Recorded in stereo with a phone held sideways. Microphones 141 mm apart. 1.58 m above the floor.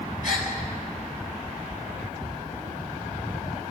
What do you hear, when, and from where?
0.2 s a gasp: 65° left (ahead or behind), 5.5 m